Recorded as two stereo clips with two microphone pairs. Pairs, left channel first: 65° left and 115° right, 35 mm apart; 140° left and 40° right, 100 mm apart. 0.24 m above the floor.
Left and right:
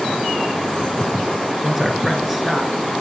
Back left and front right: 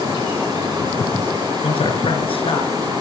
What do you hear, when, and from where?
1.6 s a man speaking: 155° left, 3.5 m